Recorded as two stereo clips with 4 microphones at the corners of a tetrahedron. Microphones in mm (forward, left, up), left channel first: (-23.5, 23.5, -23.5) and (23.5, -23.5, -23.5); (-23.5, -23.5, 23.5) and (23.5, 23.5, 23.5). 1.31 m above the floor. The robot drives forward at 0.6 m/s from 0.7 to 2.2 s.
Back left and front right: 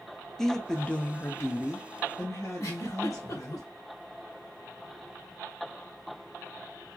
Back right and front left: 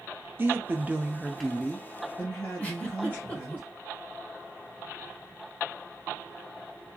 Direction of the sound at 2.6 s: 160° left.